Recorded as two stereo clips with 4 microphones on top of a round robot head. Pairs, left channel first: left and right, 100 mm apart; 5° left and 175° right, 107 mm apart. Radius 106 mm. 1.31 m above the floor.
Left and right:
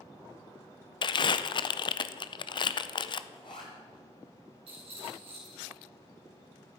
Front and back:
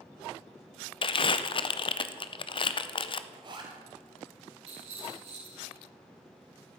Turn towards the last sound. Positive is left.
turn(degrees=-135)